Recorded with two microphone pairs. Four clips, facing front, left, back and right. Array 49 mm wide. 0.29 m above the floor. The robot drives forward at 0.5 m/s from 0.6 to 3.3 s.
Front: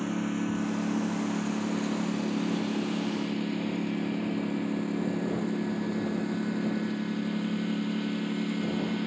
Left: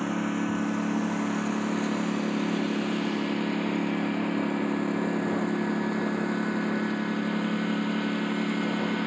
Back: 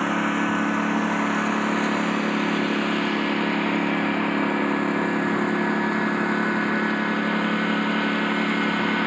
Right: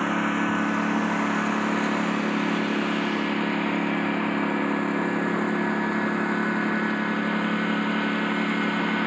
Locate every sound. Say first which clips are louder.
0.0 s a lawn mower: right 4 dB, back 8 dB; 145° right; by 9.1 s 150° right